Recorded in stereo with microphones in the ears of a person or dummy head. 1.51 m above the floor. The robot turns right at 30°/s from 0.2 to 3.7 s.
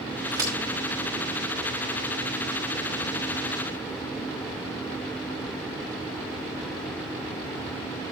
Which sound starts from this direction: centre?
A crack, at 0.3 s.